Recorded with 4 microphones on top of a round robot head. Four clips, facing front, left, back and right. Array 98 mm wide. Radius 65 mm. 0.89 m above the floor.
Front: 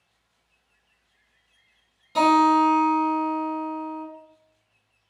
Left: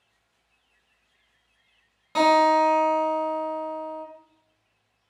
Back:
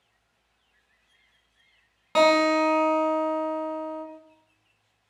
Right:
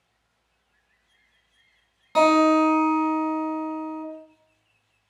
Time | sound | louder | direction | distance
2.1 | a guitar | right 1 dB, front 2 dB | 170° right | 1.2 m